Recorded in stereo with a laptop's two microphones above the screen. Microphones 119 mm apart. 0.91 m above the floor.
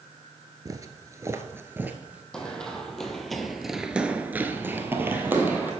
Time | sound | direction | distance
0.7 | footsteps | 30° right (ahead or behind) | 1.0 m
2.3 | running footsteps | 5° left (ahead or behind) | 2.5 m